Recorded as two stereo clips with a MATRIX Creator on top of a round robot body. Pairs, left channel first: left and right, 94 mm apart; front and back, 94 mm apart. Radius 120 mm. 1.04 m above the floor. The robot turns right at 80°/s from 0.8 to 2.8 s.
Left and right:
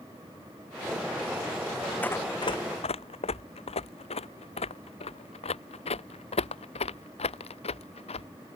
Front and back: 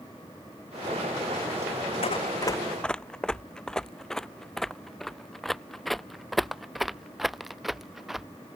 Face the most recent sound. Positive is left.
turn(degrees=90)